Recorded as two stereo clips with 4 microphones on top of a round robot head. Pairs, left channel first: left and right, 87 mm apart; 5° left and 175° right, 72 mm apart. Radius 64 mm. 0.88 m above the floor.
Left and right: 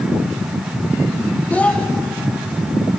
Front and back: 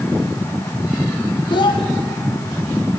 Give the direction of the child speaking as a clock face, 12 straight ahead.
12 o'clock.